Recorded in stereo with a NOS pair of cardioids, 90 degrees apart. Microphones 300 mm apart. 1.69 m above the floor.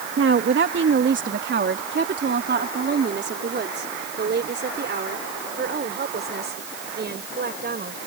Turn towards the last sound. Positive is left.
turn(degrees=-35)